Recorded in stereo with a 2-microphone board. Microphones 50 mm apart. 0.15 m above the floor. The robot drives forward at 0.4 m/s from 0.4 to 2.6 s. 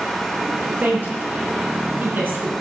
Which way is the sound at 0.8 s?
40° right (ahead or behind).